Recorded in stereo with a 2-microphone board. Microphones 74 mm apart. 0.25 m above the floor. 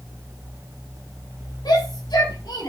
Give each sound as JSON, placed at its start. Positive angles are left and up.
{"t": 1.6, "sound": "a shout", "side_deg": 75, "distance_m": 6.5}